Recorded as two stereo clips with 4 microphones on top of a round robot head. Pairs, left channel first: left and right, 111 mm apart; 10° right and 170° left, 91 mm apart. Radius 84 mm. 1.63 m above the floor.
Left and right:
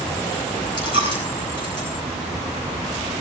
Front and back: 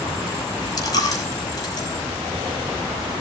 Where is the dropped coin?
30° left, 5 m.